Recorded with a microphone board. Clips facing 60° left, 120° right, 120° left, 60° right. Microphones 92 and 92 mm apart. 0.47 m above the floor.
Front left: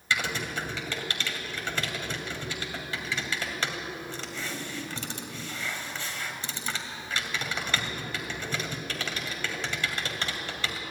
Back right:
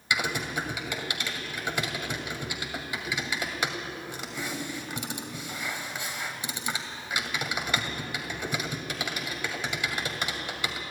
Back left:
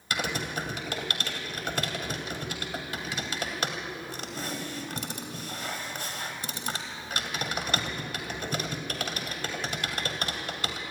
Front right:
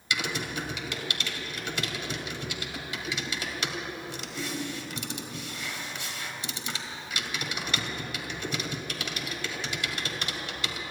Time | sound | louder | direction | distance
0.1 | typing on a keyboard | back right 1 dB, back left 1 dB | 165° left | 2.5 m